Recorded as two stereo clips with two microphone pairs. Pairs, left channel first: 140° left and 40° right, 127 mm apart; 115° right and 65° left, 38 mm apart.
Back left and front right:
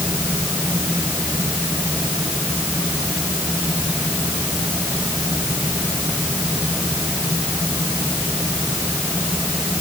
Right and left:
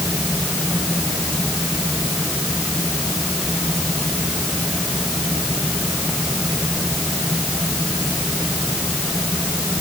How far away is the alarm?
No alarm in this recording.